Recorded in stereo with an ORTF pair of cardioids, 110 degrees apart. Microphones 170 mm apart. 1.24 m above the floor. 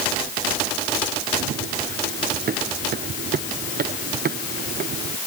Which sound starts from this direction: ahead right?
Running footsteps, at 1.4 s.